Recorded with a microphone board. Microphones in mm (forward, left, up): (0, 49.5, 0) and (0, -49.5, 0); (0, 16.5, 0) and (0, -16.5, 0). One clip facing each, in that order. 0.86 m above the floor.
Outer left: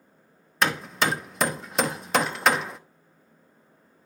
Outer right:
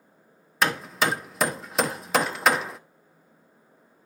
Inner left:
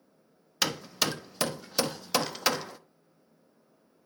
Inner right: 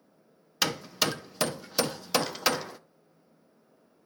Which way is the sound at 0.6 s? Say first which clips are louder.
Even, inner right 1 dB; centre (ahead or behind).